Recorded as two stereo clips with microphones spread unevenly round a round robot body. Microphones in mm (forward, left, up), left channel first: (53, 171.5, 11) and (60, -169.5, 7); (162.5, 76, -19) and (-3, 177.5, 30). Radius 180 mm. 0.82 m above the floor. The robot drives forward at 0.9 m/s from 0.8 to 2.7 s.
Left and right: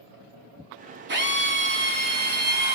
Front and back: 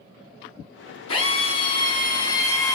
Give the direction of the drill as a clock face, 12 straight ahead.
1 o'clock.